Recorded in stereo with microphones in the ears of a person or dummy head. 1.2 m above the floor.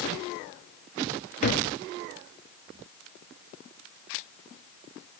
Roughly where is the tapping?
Left.